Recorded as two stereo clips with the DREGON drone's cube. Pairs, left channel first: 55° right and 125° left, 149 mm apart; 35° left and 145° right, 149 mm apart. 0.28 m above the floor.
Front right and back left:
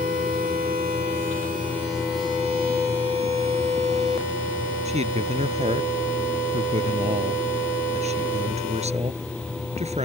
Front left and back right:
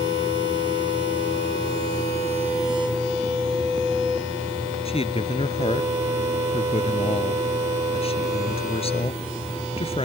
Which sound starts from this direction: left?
A man speaking, at 4.8 s.